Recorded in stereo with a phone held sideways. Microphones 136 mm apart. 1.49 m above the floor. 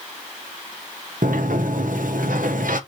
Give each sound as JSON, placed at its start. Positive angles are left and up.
{"t": 1.2, "sound": "a sliding door", "side_deg": -85, "distance_m": 1.5}